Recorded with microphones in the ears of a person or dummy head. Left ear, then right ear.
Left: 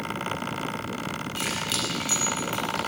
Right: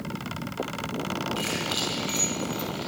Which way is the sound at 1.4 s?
30° left (ahead or behind).